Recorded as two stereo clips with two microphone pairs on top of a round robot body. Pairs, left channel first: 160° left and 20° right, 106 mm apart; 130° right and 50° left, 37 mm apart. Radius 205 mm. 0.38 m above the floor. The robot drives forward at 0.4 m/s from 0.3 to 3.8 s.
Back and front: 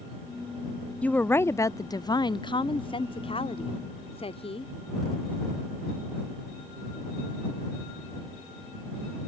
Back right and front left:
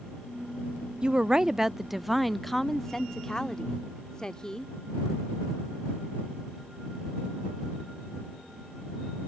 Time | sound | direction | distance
1.0 | a woman speaking | 95° left | ?